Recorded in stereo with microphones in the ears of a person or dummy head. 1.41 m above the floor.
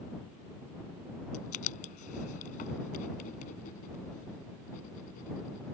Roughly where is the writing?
Left.